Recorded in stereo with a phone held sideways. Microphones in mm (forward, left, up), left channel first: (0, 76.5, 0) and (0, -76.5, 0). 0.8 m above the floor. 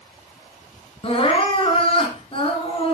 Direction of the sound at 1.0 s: 35° left (ahead or behind).